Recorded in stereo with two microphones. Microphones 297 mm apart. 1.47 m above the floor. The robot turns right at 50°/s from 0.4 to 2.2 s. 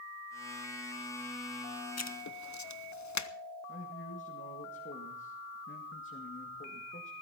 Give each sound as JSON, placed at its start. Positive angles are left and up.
{"t": 2.0, "sound": "writing", "side_deg": 55, "distance_m": 0.9}
{"t": 3.7, "sound": "a man speaking", "side_deg": 40, "distance_m": 2.0}